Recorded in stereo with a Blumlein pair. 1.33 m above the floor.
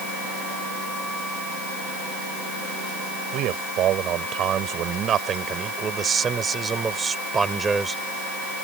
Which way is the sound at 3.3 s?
35° right.